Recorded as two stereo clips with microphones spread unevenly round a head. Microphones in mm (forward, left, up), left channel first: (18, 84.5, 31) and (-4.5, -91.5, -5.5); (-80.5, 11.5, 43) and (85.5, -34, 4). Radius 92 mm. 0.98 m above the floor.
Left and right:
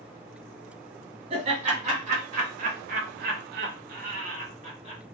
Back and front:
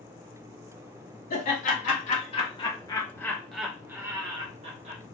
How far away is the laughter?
About 1.9 m.